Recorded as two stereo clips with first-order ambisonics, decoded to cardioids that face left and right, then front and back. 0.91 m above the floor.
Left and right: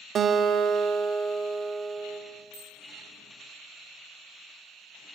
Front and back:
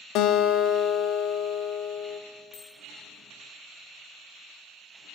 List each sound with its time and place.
0.1 s a guitar: 30° right, 0.6 m
2.5 s a bicycle bell: 5° left, 5.5 m